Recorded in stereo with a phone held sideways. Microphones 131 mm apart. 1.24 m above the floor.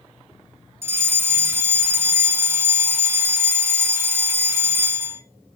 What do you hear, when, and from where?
0.8 s a fire alarm: 20° right (ahead or behind), 1.5 m